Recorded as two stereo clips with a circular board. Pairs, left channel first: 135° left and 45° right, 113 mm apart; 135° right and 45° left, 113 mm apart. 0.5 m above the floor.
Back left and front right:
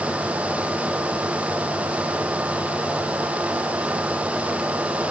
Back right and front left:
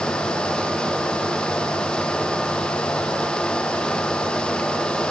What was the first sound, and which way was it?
Only background noise.